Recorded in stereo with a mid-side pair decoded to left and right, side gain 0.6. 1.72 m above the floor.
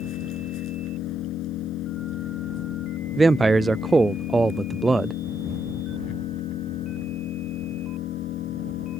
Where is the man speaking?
15° right.